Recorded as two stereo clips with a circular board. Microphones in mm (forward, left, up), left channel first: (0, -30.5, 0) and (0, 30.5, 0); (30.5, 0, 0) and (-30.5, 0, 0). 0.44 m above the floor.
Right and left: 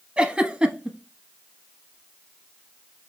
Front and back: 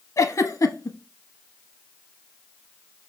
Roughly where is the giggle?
Ahead.